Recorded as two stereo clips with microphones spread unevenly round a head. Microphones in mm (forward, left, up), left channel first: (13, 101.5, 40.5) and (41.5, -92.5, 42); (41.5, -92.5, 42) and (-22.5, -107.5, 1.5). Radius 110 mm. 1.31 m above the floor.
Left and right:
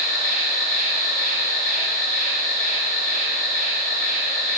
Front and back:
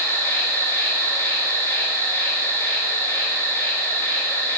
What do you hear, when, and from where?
0.0 s an insect: 70° right, 0.8 m